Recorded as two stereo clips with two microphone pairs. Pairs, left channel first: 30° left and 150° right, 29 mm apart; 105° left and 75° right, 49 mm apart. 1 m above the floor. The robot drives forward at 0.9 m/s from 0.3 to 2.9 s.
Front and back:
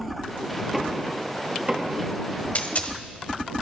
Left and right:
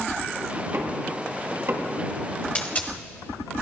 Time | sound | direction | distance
0.7 | knocking | 65° right | 1.5 m
2.5 | a dropped coin | 50° left | 1.3 m